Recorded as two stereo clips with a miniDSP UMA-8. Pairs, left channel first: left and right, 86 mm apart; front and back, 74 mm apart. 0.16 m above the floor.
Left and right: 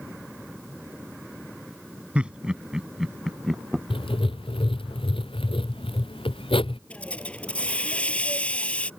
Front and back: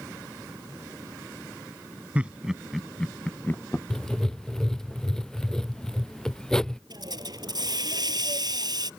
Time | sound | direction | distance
2.1 | laughter | 145° right | ?
3.9 | writing | 85° left | ?
6.9 | a hiss | 165° left | ?